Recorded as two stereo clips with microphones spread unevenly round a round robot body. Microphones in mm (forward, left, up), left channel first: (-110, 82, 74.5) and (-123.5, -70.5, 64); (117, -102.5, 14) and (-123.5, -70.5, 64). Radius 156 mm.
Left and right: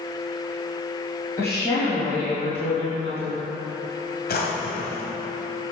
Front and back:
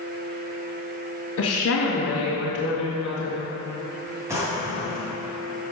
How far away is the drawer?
About 1.6 m.